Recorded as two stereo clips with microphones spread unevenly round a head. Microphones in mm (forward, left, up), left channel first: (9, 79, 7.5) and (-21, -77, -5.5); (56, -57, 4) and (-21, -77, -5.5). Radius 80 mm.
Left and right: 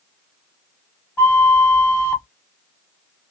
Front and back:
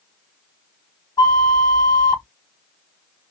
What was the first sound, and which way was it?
A flute, 10° left.